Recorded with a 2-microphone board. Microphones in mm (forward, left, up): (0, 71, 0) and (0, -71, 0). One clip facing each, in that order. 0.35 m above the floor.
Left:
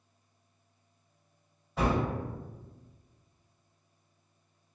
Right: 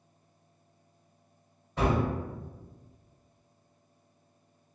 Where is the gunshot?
Centre (ahead or behind), 1.7 m.